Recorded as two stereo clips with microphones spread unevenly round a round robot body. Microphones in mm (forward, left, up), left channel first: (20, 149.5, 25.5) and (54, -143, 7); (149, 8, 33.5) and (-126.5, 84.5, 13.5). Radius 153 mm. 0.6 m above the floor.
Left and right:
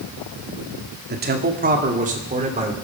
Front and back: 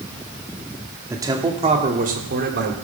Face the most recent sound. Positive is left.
turn(degrees=-150)